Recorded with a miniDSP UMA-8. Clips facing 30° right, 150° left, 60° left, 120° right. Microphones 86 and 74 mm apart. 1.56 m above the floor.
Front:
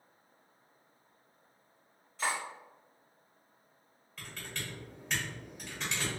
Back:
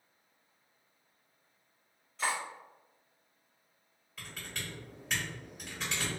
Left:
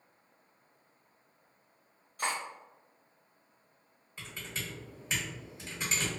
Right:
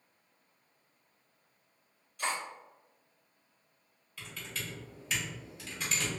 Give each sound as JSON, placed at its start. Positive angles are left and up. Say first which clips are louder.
{"t": 2.2, "sound": "cutlery clinking", "louder": "even, left 1 dB", "azimuth_deg": 55, "distance_m": 1.2}
{"t": 4.2, "sound": "typing on a keyboard", "louder": "front 1 dB, left 1 dB", "azimuth_deg": 65, "distance_m": 1.4}